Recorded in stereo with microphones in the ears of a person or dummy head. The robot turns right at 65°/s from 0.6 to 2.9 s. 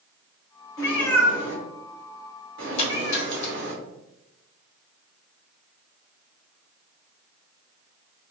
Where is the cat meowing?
20° left (ahead or behind), 1.5 m; by 3.7 s 55° right (ahead or behind), 1.5 m.